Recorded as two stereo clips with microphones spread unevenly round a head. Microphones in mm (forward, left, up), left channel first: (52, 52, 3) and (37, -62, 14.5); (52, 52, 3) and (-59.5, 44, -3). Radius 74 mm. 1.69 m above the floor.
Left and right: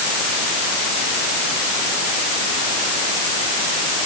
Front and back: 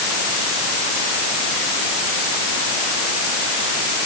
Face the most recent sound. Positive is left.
No sound to turn to.